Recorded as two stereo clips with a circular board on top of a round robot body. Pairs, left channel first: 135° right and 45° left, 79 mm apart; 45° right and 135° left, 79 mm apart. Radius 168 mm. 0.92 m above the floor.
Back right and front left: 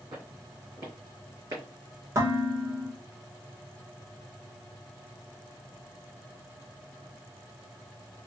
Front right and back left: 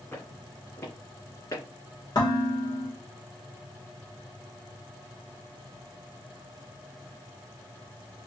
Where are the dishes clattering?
5° right, 2 m.